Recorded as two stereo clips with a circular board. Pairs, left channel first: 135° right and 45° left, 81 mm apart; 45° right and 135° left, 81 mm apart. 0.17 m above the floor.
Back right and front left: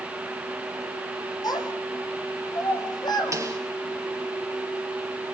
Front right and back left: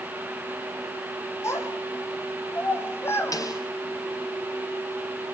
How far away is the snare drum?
About 3.5 m.